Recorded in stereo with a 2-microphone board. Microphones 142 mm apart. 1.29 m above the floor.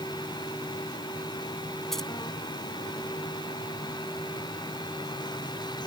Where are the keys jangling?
5° left (ahead or behind).